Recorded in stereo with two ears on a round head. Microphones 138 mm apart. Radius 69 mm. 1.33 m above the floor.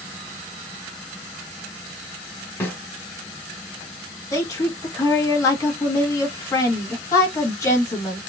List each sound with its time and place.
2.6 s a snare drum: 10° left (ahead or behind), 1.7 m
4.3 s a woman speaking: 20° left (ahead or behind), 1.4 m